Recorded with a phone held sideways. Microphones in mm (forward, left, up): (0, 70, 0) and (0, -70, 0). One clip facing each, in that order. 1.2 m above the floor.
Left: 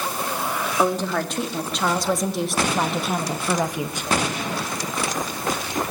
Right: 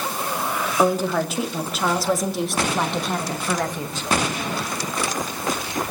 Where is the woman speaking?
5° right (ahead or behind), 3 m; by 4.1 s 15° left (ahead or behind), 1.5 m.